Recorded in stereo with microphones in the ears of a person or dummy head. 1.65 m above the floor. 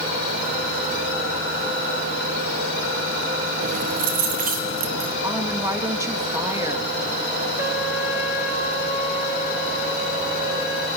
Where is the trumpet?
10° right (ahead or behind), 4 m.